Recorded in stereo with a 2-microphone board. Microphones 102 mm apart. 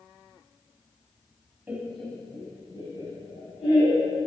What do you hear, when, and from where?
1.7 s laughter: 15° right (ahead or behind), 1.1 m; by 4.3 s 75° left (ahead or behind), 3 m